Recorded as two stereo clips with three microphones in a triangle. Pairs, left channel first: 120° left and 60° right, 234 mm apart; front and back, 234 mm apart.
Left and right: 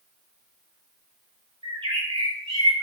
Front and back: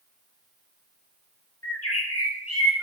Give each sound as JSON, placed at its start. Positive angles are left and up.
{"t": 1.6, "sound": "a bird", "azimuth_deg": 10, "distance_m": 6.0}